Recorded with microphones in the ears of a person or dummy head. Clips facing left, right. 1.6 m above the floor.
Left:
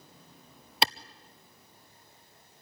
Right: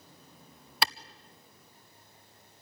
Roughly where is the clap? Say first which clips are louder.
Left 3 dB; centre.